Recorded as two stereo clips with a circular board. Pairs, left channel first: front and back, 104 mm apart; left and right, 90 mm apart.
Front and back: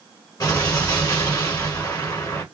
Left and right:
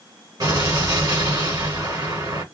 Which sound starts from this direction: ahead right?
An explosion, at 0.4 s.